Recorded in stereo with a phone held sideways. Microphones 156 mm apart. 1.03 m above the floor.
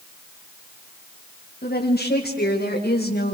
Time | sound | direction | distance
1.6 | a woman speaking | 70° left (ahead or behind) | 7 m